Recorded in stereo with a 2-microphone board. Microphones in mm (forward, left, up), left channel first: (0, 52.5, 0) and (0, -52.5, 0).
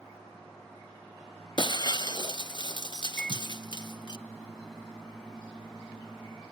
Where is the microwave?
5° left (ahead or behind), 2 m.